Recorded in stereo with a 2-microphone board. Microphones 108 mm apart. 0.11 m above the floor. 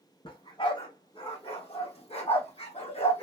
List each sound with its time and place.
0.2 s a dog barking: 50° left (ahead or behind), 2.5 m; by 3.2 s 75° left (ahead or behind), 2 m